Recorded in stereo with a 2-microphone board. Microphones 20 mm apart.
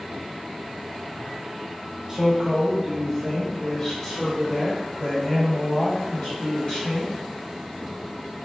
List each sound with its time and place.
2.1 s a man speaking: 35° right (ahead or behind), 1.4 m; by 7.2 s 60° left (ahead or behind), 3 m